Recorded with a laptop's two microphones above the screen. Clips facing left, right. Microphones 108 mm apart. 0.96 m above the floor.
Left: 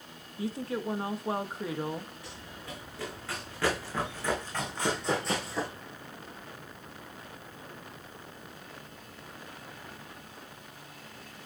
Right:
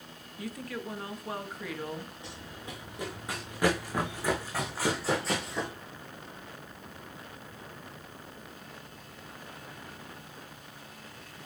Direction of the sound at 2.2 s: 20° right (ahead or behind).